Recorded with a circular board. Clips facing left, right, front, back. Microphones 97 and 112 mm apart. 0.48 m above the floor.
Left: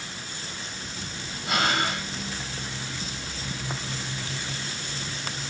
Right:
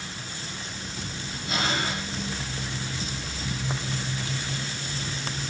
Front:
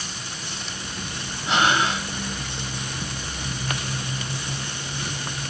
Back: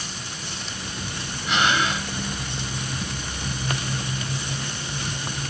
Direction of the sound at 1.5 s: 55° left.